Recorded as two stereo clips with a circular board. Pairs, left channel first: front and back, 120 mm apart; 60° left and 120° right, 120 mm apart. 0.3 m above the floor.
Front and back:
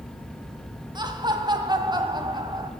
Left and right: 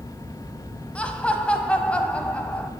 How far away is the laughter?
About 1.4 m.